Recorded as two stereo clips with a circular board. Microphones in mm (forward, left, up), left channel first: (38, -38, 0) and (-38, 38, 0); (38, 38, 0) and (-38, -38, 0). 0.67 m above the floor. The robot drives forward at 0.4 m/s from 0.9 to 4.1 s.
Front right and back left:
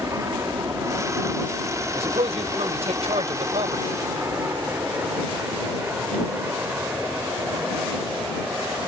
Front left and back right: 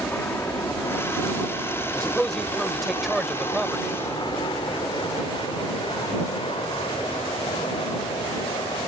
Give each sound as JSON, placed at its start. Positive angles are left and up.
{"t": 0.0, "sound": "an aircraft", "azimuth_deg": 100}
{"t": 1.9, "sound": "a man speaking", "azimuth_deg": 125}